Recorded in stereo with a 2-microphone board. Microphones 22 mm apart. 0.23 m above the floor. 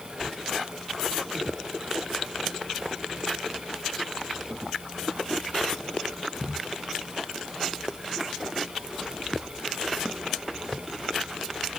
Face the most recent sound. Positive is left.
No sound to turn to.